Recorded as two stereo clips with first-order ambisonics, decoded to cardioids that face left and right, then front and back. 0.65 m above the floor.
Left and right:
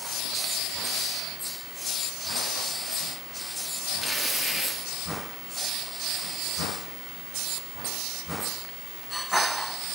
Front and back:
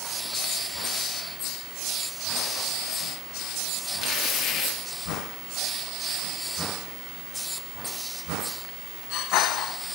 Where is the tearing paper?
15° right, 0.6 m.